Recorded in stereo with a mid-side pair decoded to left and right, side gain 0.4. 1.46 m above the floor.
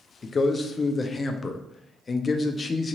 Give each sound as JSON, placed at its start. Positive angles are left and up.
{"t": 0.2, "sound": "a man speaking", "azimuth_deg": 40, "distance_m": 0.5}